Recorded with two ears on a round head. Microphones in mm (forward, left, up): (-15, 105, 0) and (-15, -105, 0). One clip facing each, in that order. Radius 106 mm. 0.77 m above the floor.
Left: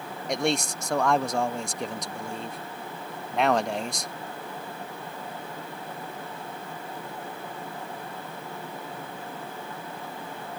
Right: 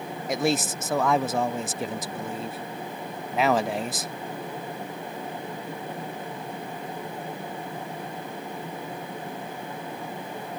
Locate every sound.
0.3 s a man speaking: 5° right (ahead or behind)